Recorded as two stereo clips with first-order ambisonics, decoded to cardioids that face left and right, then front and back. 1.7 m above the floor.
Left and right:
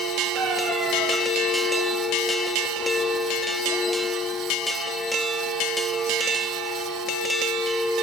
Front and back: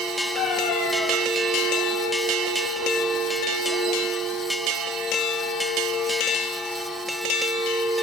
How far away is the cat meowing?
About 6 m.